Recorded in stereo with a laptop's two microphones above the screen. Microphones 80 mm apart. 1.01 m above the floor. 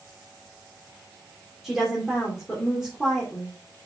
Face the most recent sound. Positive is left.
turn(degrees=0)  # may be behind; listen again after turning